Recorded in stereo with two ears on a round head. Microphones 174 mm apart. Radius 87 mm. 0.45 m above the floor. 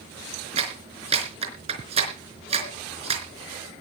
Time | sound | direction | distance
0.6 | a clap | 30° right (ahead or behind) | 4 m